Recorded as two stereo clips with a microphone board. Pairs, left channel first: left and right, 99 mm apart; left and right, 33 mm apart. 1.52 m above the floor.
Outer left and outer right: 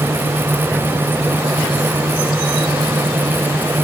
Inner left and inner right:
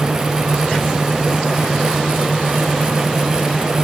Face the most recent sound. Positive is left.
No sound to turn to.